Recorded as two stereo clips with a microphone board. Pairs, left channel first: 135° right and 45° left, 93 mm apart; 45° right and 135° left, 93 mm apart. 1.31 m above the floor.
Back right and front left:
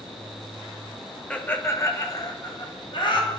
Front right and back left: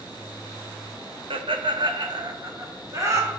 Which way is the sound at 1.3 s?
150° left.